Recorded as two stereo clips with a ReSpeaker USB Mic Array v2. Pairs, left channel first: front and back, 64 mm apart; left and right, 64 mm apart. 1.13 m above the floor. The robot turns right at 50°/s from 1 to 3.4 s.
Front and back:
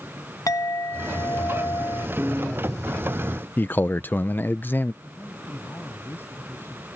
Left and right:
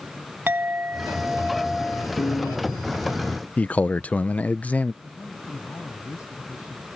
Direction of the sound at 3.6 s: 40° left.